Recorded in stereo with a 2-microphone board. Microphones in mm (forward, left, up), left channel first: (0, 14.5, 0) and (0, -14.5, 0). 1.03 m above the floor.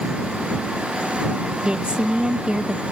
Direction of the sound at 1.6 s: 35° right (ahead or behind).